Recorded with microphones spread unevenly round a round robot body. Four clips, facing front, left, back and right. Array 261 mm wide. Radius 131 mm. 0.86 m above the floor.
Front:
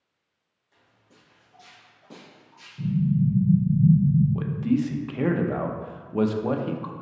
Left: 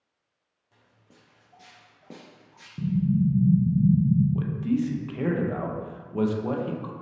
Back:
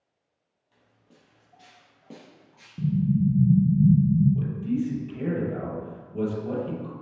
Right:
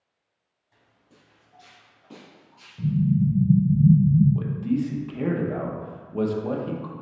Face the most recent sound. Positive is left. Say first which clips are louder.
# even, front 3 dB
turn(degrees=0)